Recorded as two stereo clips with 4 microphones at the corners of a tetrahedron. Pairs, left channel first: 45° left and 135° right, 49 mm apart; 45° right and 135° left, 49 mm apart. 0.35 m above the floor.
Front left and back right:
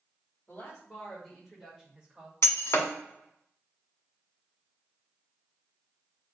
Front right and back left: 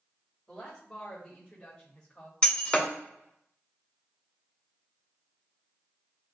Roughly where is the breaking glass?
Ahead left.